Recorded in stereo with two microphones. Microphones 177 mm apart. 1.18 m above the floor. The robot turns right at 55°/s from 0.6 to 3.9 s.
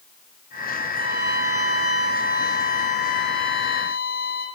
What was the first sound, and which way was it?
A violin, 50° left.